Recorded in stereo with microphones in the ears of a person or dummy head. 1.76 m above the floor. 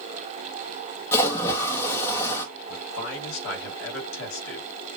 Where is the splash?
15° left (ahead or behind), 1.7 m.